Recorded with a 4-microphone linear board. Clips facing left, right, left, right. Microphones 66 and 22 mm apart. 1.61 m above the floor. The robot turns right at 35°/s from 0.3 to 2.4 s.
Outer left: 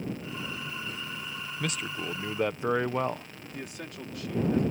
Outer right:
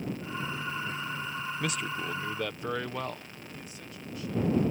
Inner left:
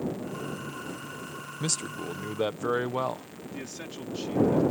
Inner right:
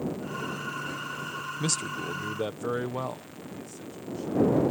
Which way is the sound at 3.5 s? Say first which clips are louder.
Outer left 9 dB, inner left 5 dB; 70° left (ahead or behind).